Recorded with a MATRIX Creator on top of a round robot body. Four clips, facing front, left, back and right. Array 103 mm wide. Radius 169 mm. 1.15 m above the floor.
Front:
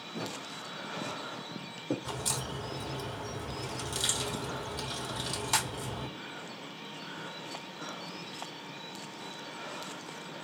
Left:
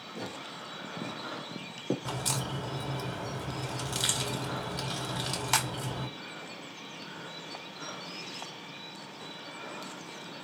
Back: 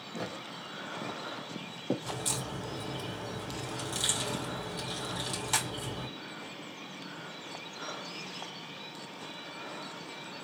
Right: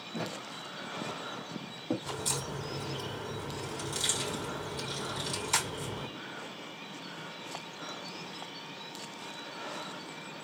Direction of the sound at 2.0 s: 85° left.